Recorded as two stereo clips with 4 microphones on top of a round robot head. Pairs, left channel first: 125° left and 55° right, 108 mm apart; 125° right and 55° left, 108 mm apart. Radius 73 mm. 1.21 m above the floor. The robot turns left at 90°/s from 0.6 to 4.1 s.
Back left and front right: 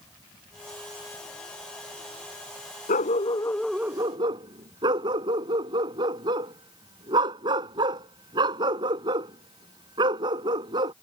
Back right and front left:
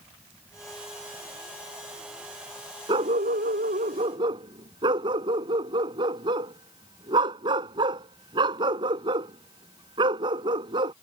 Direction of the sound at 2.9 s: 110° left.